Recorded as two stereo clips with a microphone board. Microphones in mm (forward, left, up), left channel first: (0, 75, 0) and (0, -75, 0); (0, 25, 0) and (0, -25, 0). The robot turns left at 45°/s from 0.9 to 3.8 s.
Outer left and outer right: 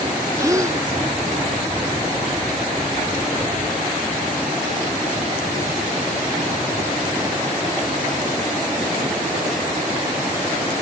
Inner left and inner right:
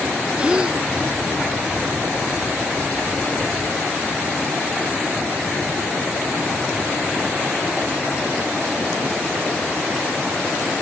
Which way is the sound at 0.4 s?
20° right (ahead or behind).